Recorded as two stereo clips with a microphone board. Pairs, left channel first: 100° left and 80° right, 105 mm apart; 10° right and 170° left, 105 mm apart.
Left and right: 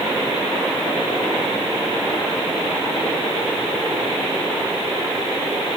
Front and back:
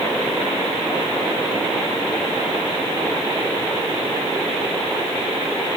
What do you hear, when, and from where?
Only background noise.